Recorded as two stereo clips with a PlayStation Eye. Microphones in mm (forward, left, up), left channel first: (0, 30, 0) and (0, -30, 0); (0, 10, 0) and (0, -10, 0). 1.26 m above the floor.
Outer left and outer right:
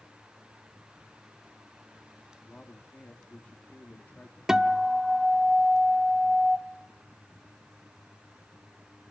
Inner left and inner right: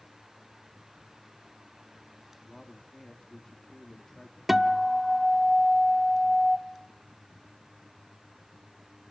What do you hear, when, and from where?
2.5 s a man speaking: 25° left (ahead or behind), 2 m
4.5 s a guitar: 10° right (ahead or behind), 0.9 m